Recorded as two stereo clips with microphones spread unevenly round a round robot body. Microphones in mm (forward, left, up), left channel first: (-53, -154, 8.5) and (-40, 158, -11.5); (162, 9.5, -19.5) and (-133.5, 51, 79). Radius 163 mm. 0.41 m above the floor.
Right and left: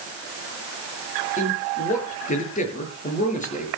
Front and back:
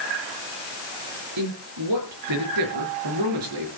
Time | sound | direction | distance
1.4 | a man speaking | 160° right | 6.5 m